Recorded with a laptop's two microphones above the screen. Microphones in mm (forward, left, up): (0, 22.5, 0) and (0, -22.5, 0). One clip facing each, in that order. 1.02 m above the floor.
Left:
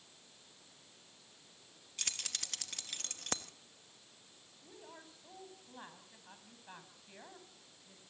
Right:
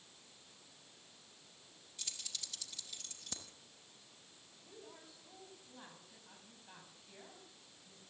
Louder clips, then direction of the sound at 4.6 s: Left 2 dB; 25° left (ahead or behind).